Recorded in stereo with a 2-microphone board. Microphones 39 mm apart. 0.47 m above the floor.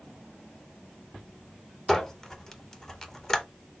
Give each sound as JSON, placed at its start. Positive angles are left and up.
{"t": 1.9, "sound": "a squeak", "side_deg": 15, "distance_m": 0.5}